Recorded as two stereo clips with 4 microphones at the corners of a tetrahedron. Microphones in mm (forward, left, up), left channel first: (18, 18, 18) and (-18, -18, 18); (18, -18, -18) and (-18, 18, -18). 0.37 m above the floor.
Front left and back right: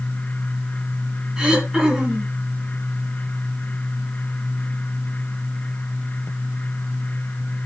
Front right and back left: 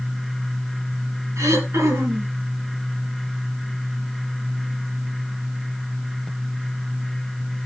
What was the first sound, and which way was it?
Throat clearing, 150° left.